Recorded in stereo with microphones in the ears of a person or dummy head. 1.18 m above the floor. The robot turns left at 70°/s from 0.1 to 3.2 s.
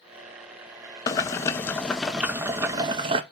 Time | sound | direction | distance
1.1 | boiling | 20° left (ahead or behind) | 0.6 m